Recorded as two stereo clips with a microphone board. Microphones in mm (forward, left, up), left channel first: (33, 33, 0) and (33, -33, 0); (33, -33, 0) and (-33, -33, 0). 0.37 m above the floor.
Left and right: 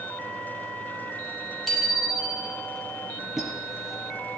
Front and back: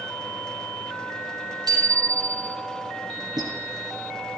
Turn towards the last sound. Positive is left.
turn(degrees=180)